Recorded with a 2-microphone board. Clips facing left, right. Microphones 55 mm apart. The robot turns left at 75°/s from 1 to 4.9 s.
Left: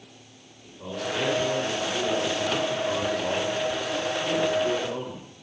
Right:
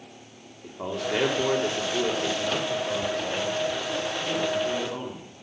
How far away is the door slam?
I don't hear a door slam.